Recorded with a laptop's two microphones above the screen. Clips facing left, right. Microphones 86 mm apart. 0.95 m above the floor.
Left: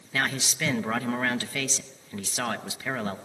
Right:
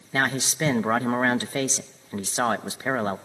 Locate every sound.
0.1 s a man speaking: 30° right (ahead or behind), 0.8 m